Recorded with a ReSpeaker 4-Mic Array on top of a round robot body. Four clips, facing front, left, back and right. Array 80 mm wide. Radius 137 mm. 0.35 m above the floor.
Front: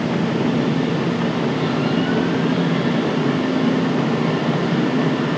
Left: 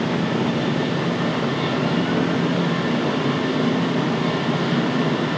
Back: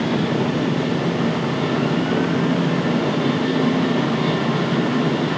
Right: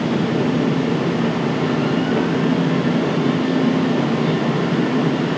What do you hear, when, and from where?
Only background noise.